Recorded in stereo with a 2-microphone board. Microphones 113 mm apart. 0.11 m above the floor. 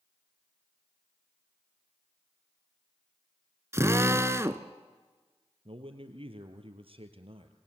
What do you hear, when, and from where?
3.7 s a drill: 25° right (ahead or behind), 0.9 m
5.7 s a man speaking: 55° right (ahead or behind), 2.5 m